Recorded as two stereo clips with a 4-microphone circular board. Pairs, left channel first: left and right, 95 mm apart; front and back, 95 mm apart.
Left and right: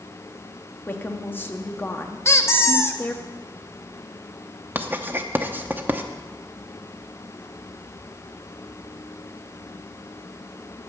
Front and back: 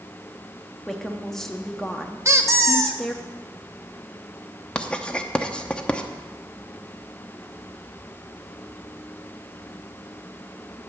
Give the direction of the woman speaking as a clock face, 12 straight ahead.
9 o'clock.